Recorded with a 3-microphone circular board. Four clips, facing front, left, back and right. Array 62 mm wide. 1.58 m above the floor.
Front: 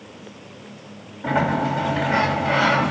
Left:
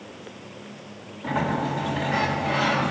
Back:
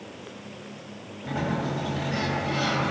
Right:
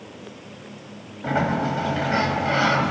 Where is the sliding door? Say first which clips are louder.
Right 3 dB, front 8 dB; 40° right, 5 m.